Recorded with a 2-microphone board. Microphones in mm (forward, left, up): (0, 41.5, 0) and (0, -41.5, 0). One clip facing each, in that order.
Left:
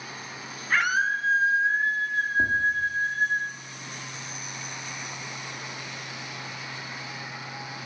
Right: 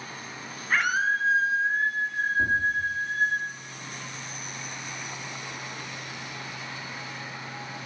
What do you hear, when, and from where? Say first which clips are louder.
0.7 s a scream: even; centre (ahead or behind), 2.5 m
2.4 s tapping: even; 25° left (ahead or behind), 7.5 m